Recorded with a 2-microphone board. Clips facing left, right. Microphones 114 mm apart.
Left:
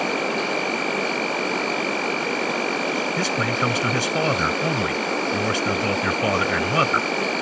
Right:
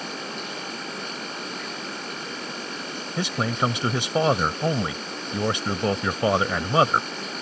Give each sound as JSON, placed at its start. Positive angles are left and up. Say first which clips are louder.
{"t": 0.0, "sound": "an insect", "louder": "left 11 dB", "side_deg": 85}
{"t": 3.2, "sound": "a man speaking", "louder": "left 2 dB", "side_deg": -20}